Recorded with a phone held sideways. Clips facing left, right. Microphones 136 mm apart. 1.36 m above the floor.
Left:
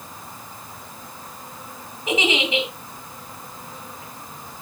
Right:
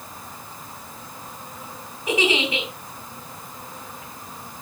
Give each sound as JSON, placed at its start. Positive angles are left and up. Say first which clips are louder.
{"t": 2.1, "sound": "a giggle", "louder": "even", "side_deg": 20, "distance_m": 3.5}